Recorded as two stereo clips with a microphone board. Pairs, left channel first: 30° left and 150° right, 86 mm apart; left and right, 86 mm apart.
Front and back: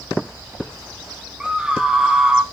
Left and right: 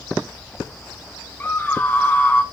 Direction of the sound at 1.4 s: 140° left.